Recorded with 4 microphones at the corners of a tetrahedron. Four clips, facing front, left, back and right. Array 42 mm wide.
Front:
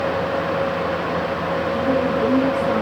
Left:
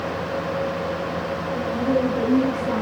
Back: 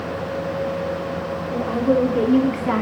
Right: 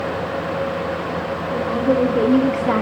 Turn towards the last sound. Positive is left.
turn(degrees=-115)